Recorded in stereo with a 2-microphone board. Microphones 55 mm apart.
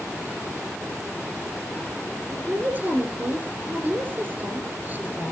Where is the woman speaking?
35° right (ahead or behind), 6.5 m.